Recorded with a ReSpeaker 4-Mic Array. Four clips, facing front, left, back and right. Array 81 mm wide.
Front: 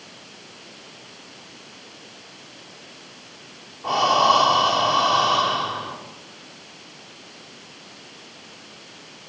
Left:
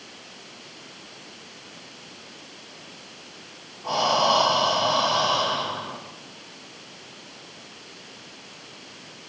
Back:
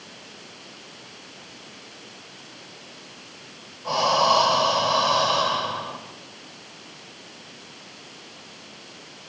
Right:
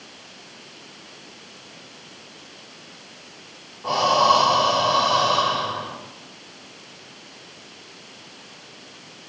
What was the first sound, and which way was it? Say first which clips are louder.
Breathing: right 4 dB, front 3 dB; 15° right.